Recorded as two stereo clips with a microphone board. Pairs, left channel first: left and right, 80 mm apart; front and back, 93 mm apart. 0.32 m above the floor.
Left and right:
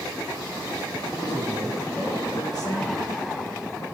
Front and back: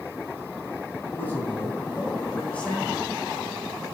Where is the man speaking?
60° left, 2.5 m; by 3.9 s 90° left, 1.8 m.